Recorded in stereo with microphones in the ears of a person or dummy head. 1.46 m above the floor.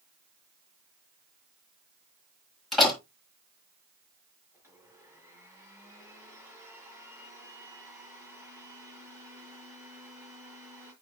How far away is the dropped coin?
No dropped coin in this recording.